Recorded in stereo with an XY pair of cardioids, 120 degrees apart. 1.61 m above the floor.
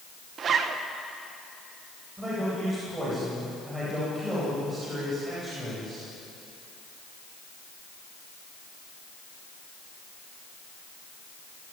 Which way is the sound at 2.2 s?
20° right.